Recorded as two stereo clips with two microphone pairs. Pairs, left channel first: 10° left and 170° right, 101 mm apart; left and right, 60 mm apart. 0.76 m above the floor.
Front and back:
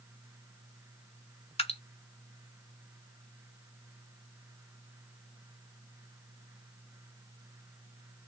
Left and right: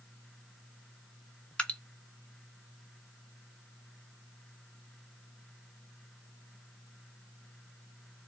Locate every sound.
1.6 s dripping: 20° left, 1.4 m